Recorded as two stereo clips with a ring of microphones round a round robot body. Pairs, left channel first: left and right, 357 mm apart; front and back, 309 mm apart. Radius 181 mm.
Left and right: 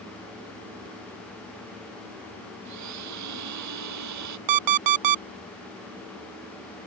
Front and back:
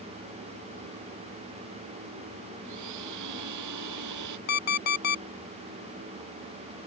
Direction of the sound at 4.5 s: 60° right.